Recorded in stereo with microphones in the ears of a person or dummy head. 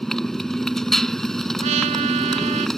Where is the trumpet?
35° right (ahead or behind).